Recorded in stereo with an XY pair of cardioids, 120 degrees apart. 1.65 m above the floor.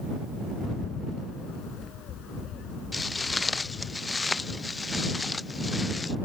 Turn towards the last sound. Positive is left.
turn(degrees=20)